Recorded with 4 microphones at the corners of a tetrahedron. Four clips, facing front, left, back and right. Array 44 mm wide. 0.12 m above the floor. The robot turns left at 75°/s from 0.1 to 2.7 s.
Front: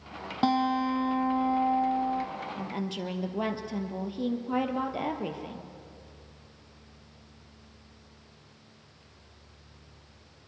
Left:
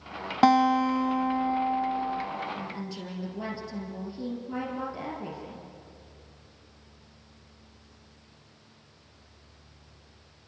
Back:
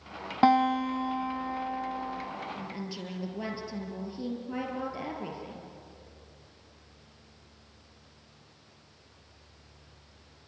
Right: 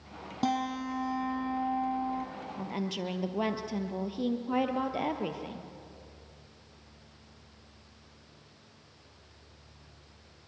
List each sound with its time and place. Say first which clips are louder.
0.4 s a guitar: left 11 dB, back 3 dB; 120° left, 2.5 m; by 2.2 s 20° right, 2.5 m
2.6 s a woman speaking: right 2 dB, front 4 dB; 45° right, 3 m; by 5.7 s 55° right, 3 m